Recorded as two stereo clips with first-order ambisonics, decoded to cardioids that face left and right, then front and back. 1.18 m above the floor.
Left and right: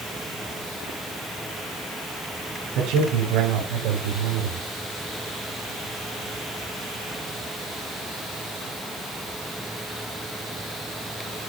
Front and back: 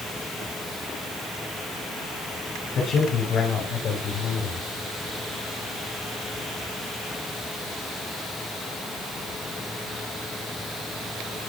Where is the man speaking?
60° right, 5 m; by 4.7 s 70° right, 4 m.